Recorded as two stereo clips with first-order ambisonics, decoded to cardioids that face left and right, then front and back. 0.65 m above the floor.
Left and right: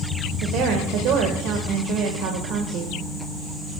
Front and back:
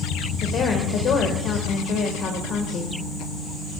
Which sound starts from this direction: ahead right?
A woman speaking, at 0.4 s.